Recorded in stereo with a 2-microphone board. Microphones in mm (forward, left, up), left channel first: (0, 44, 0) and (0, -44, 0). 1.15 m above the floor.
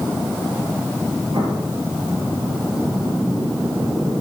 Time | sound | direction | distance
1.3 | an explosion | 70° right (ahead or behind) | 7.5 m